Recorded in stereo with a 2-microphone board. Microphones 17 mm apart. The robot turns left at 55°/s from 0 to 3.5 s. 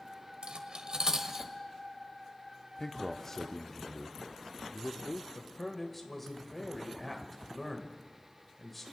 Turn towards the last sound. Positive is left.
turn(degrees=5)  # may be behind; listen again after turning